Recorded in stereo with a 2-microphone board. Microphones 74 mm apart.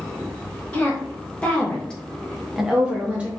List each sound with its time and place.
0.7 s a woman speaking: 20° left (ahead or behind), 1.4 m; by 3.3 s 20° right (ahead or behind), 0.6 m